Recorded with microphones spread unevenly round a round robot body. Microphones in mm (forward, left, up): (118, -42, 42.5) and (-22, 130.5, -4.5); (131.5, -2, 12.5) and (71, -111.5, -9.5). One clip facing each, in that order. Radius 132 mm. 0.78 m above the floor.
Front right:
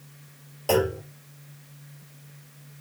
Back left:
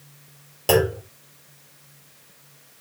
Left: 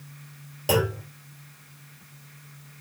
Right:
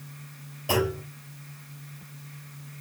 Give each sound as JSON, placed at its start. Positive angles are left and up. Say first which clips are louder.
{"t": 0.7, "sound": "a clunk", "louder": "back left 3 dB, left 2 dB", "azimuth_deg": 90, "distance_m": 2.5}